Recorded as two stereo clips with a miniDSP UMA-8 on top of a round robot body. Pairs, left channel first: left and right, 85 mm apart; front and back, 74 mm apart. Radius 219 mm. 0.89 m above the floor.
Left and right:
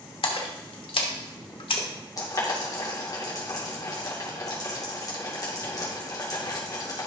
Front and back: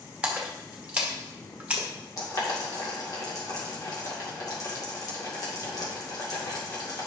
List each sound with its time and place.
0.2 s a splash: 110° left, 1.2 m
2.2 s boiling: 45° left, 2 m